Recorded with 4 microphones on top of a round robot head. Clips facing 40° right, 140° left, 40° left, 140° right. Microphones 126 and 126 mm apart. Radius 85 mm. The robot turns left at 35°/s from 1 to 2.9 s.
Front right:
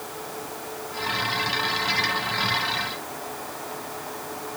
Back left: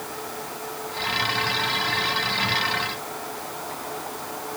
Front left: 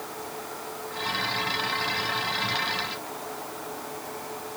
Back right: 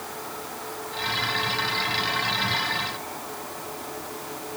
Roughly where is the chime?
I don't hear a chime.